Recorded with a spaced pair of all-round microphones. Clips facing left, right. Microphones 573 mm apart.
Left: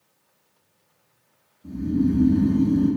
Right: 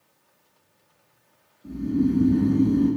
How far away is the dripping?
No dripping in this recording.